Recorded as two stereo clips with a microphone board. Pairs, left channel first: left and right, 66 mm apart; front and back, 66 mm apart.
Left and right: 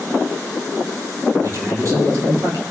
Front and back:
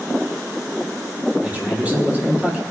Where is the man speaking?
115° right, 3.5 m.